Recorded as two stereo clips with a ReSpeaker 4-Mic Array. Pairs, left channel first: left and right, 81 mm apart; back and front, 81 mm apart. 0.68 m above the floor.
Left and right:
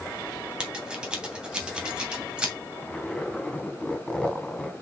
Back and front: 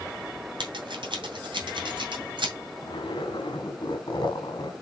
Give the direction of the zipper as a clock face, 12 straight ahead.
6 o'clock.